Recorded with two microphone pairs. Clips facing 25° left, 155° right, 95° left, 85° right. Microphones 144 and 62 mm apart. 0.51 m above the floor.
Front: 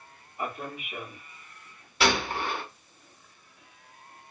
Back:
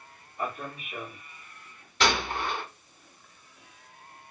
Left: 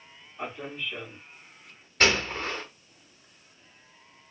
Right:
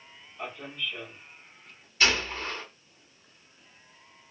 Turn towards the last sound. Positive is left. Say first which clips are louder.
# front 1 dB, left 2 dB
turn(degrees=105)